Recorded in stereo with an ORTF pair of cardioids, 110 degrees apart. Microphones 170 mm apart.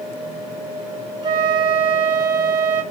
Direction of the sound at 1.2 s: 25° right.